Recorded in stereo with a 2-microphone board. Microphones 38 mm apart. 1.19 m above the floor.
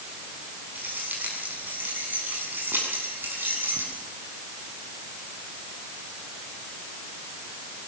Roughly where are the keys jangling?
Right.